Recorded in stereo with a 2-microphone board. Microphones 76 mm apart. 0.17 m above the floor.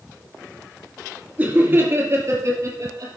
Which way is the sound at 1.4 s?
20° right (ahead or behind).